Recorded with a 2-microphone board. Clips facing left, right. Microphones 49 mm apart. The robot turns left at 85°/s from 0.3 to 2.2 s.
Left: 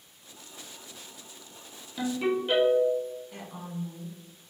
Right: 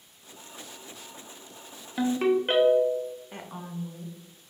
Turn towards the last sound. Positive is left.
turn(degrees=-35)  # may be behind; listen again after turning